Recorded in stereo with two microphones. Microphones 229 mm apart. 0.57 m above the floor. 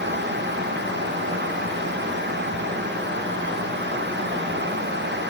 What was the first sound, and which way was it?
Only background noise.